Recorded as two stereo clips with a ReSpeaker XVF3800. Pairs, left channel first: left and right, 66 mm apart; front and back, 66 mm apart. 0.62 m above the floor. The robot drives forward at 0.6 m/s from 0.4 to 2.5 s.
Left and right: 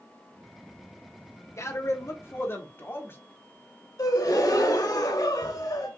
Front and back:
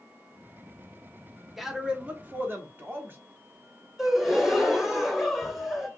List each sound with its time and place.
1.6 s a man speaking: 95° left, 0.9 m; by 3.2 s 130° left, 1.1 m
4.0 s a gasp: 95° left, 0.9 m